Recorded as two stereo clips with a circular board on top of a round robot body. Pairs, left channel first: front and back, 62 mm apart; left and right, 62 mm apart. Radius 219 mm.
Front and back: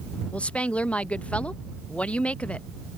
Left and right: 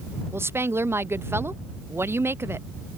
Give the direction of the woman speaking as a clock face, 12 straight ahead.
2 o'clock.